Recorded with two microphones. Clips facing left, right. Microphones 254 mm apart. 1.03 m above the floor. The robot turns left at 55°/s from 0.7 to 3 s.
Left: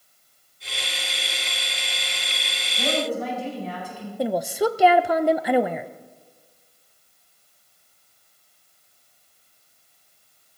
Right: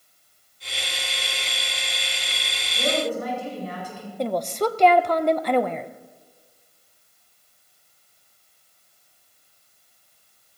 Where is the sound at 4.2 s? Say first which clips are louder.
Left 1 dB; 10° left (ahead or behind), 0.5 m.